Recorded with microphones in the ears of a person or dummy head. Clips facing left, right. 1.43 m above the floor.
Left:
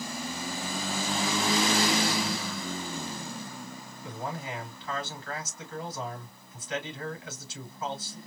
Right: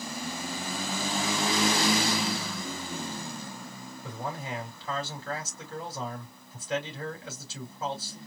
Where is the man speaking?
30° right (ahead or behind), 3 m.